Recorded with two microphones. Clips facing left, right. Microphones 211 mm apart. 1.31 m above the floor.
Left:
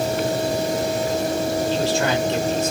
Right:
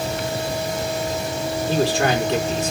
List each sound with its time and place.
1.7 s a man speaking: 75° right (ahead or behind), 4.5 m